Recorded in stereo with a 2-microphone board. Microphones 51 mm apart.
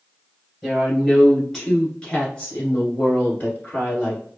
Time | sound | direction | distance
0.6 | a woman speaking | 5° right (ahead or behind) | 2.0 m